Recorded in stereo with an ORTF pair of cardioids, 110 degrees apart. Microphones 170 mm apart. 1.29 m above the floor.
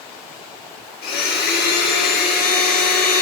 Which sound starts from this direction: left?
A blender, at 1.0 s.